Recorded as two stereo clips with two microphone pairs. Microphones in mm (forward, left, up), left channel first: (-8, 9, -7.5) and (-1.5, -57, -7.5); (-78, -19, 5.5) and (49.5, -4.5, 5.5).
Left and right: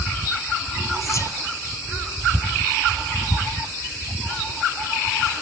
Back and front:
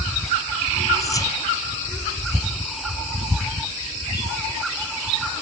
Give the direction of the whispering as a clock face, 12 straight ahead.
8 o'clock.